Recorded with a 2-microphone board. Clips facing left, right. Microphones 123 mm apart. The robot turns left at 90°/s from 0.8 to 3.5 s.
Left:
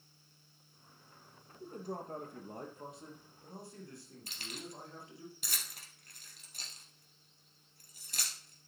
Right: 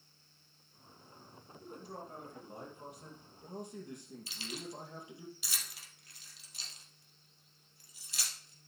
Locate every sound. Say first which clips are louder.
1.6 s a man speaking: left 5 dB; 150° left, 2.5 m; by 5.3 s 20° right, 2.5 m
4.3 s keys jangling: right 2 dB; 50° left (ahead or behind), 2 m